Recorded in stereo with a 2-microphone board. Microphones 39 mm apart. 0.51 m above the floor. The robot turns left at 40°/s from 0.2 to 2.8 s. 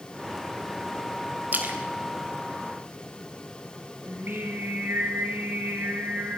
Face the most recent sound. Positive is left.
turn(degrees=-80)